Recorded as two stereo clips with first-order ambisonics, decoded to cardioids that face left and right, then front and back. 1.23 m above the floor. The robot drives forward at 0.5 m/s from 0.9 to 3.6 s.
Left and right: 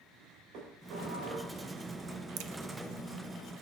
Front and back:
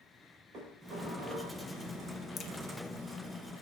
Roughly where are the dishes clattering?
Behind right.